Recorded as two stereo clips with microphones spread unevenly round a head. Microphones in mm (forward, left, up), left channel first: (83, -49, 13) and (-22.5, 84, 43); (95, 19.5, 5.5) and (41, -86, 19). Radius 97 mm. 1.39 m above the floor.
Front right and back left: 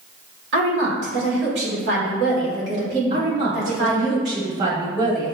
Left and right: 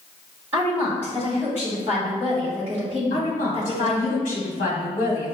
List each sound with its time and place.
0.5 s a woman speaking: 160° left, 1.4 m
3.1 s a woman speaking: 85° left, 1.1 m